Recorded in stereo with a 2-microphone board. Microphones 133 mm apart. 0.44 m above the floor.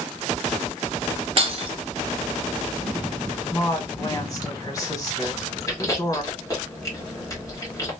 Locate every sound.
1.4 s breaking glass: 45° right (ahead or behind), 0.6 m
3.5 s a woman speaking: 25° left (ahead or behind), 1.6 m
5.2 s chewing: 25° left (ahead or behind), 1.4 m